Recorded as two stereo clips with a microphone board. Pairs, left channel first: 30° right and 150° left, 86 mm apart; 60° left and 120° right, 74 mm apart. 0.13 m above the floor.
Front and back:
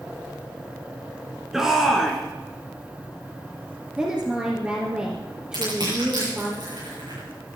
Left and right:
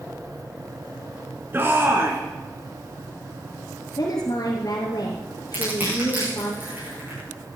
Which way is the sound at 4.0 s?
75° left.